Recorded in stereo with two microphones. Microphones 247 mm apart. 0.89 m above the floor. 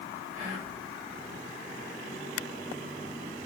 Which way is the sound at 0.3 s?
25° right (ahead or behind).